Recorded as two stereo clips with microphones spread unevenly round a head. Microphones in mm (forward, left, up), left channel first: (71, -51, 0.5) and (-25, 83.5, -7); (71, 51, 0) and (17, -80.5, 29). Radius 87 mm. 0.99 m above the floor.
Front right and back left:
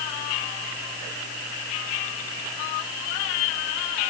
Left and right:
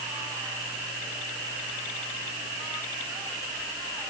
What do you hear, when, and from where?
Only background noise.